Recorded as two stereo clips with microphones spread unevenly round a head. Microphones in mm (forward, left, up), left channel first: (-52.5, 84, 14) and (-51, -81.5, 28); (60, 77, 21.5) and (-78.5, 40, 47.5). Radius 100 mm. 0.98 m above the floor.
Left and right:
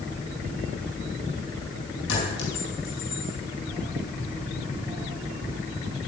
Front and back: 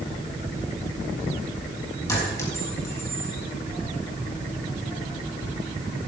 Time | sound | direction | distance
2.1 | a clink | 85° left | 6 m